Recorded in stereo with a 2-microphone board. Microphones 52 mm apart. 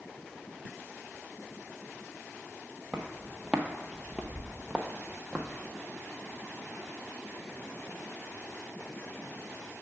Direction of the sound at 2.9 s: 10° right (ahead or behind).